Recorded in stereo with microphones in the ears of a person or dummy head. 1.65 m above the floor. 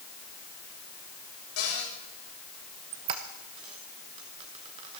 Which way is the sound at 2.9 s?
30° right (ahead or behind).